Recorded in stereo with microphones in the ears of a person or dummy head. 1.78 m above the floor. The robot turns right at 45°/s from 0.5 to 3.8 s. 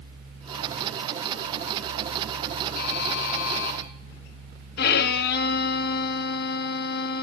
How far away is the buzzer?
About 5 m.